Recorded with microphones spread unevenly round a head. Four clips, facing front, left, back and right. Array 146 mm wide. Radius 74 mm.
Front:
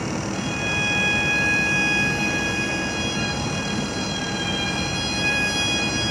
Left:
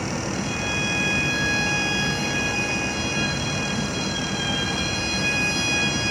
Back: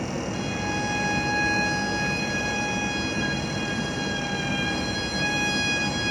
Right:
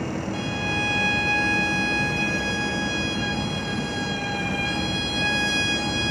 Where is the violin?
75° right, 1.1 m.